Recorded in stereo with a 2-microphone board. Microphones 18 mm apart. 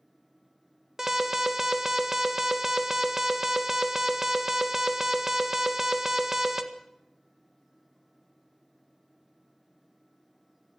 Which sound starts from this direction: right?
An alarm, at 1.0 s.